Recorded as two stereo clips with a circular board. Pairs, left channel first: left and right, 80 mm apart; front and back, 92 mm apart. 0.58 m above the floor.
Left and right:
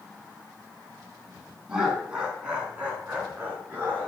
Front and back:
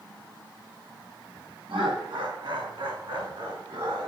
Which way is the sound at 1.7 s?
170° right.